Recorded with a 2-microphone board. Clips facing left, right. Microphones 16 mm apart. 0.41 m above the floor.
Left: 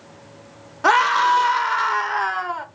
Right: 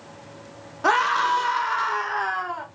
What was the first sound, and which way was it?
A scream, 25° left (ahead or behind).